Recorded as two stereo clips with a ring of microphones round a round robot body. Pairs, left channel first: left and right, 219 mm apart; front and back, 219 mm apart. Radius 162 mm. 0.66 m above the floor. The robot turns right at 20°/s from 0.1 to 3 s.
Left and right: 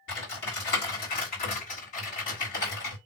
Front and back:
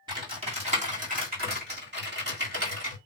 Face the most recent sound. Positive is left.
turn(degrees=170)